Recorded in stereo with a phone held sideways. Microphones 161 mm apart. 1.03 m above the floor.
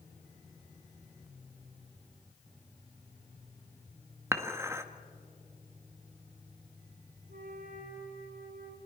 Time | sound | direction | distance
4.3 | dishes clattering | 20° right (ahead or behind) | 0.9 m
7.3 | a flute | 70° right (ahead or behind) | 2.5 m